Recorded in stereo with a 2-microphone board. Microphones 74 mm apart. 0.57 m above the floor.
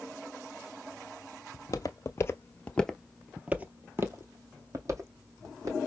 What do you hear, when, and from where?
1.5 s footsteps: 50° left (ahead or behind), 0.9 m; by 5.8 s 50° right (ahead or behind), 1.6 m